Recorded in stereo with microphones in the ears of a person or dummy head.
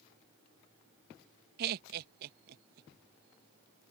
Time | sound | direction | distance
1.6 | laughter | 55° right (ahead or behind) | ?